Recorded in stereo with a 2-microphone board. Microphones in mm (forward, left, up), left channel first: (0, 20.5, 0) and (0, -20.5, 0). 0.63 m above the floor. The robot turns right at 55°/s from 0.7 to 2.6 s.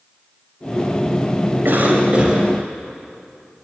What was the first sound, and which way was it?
A cough, 60° right.